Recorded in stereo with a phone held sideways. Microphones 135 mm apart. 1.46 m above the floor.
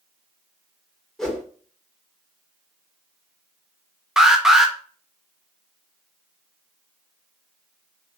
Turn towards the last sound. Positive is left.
turn(degrees=-5)  # may be behind; listen again after turning